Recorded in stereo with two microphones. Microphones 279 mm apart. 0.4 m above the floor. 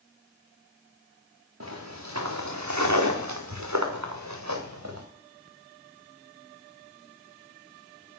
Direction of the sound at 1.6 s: 60° right (ahead or behind).